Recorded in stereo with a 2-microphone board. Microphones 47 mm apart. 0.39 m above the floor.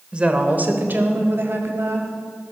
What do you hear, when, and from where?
0.1 s a woman speaking: 25° right (ahead or behind), 1.4 m; by 2.1 s 65° right (ahead or behind), 2.5 m